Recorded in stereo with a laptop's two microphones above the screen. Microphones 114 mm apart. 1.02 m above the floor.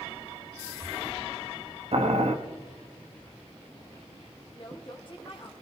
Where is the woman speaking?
45° left (ahead or behind), 1.6 m.